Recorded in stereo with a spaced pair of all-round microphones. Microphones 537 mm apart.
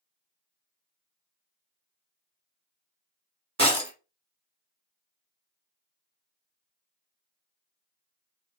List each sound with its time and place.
3.6 s breaking glass: 30° right (ahead or behind), 1.0 m